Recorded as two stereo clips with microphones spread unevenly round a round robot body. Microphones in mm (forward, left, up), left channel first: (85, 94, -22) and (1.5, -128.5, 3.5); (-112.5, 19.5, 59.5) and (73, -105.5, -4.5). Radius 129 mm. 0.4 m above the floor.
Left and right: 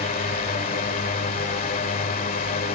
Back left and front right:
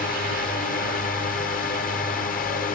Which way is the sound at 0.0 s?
95° left.